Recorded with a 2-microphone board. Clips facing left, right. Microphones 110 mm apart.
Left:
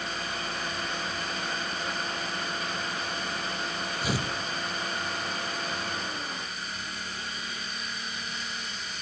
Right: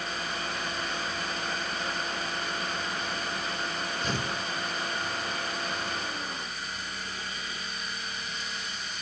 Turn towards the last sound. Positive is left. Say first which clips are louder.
# left 2 dB
turn(degrees=10)  # may be behind; listen again after turning